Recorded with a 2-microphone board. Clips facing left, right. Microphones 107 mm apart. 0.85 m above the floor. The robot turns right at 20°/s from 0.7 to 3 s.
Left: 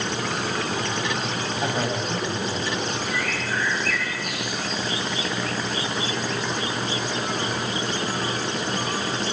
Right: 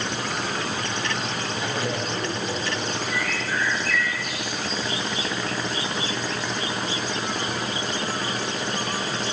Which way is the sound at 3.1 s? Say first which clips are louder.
Even; 50° left (ahead or behind).